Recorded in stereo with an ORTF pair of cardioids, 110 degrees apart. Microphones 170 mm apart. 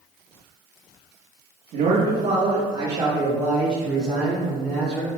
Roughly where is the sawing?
I don't hear sawing.